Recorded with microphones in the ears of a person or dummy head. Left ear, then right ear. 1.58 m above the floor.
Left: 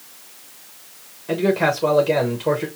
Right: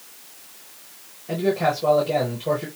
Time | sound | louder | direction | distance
1.3 | a man speaking | left 3 dB | 50° left (ahead or behind) | 1.1 m